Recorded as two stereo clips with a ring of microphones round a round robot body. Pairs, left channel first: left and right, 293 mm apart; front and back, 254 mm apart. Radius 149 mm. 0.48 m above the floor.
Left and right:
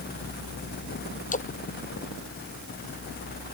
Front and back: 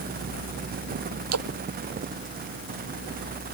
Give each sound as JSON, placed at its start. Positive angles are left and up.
{"t": 1.3, "sound": "a splash", "azimuth_deg": 155}